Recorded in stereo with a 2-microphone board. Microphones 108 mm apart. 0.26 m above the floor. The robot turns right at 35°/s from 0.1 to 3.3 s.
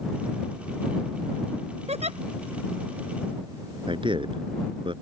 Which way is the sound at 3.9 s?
50° right (ahead or behind).